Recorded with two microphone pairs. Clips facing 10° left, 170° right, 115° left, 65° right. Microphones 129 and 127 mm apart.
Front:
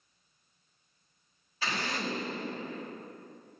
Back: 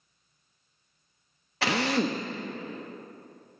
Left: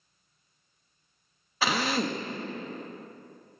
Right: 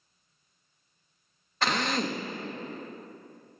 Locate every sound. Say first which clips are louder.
1.6 s a drill: back 9 dB, left 1 dB; 160° right, 0.9 m